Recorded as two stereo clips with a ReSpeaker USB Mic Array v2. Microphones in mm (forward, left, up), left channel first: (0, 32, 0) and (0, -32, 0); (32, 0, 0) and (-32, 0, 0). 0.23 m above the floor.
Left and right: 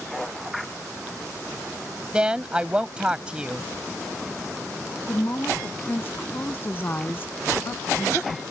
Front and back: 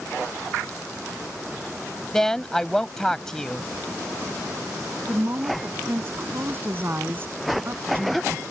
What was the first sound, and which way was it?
A woman speaking, 60° right.